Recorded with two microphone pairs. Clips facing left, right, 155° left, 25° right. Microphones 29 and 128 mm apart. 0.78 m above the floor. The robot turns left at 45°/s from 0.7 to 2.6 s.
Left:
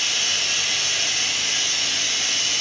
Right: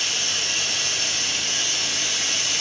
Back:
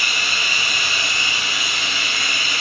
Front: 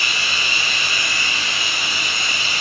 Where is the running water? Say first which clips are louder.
Left 2 dB, even; 105° left, 2 m; by 2.6 s 20° left, 2 m.